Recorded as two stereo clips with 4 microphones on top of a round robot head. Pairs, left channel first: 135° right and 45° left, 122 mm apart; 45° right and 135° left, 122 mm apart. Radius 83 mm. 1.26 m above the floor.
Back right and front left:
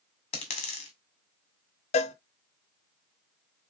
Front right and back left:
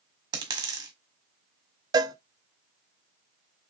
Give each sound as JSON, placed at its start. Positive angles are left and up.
{"t": 0.3, "sound": "a dropped coin", "azimuth_deg": -170, "distance_m": 1.7}
{"t": 1.9, "sound": "a cowbell", "azimuth_deg": -165, "distance_m": 0.6}